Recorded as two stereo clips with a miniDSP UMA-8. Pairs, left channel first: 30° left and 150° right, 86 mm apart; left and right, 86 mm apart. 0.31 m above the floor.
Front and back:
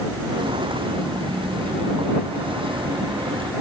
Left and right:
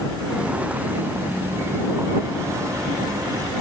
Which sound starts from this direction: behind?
Footsteps, at 0.3 s.